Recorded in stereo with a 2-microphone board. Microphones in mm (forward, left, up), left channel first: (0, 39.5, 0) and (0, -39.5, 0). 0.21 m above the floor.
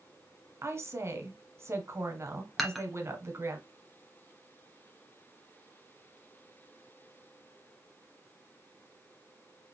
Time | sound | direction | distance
0.6 | a woman speaking | 35° right (ahead or behind) | 1.5 m
2.6 | dishes clattering | centre (ahead or behind) | 1.3 m